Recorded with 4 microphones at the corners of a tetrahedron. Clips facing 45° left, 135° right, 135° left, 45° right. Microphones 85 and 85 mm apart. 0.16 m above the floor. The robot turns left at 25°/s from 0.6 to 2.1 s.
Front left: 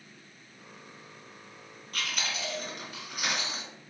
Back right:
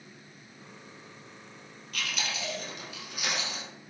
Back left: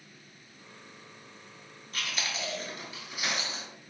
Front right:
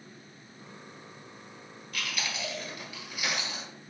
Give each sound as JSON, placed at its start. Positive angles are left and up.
{"t": 1.9, "sound": "chewing", "azimuth_deg": 85, "distance_m": 1.5}